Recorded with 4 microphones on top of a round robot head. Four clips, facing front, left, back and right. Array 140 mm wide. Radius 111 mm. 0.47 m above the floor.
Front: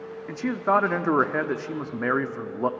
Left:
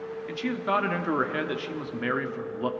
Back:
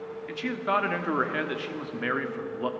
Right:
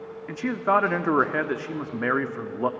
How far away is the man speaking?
About 1.2 m.